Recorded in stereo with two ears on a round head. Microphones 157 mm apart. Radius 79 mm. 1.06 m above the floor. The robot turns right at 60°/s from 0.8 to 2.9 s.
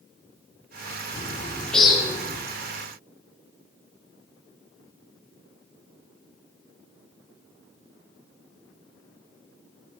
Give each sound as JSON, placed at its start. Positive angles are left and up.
{"t": 1.1, "sound": "a bird", "azimuth_deg": 140, "distance_m": 3.0}